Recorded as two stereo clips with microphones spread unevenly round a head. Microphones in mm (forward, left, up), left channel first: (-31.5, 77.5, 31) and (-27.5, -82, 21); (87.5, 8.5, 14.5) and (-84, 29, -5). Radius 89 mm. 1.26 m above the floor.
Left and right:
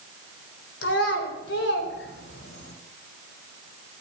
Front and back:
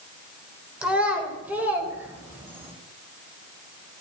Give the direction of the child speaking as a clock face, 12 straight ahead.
9 o'clock.